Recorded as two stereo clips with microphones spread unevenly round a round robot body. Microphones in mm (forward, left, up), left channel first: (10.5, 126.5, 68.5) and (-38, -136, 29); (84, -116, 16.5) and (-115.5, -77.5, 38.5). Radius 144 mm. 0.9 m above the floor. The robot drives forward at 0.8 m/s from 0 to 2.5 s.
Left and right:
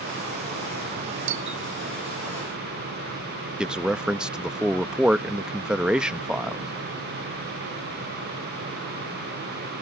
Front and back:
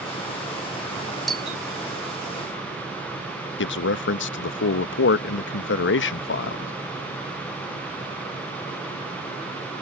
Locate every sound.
1.3 s a doorbell: 100° right; by 1.6 s 105° right
3.6 s a man speaking: 15° right